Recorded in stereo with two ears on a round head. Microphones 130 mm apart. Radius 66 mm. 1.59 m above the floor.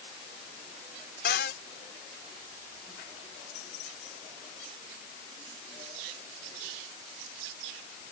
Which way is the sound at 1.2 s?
85° left.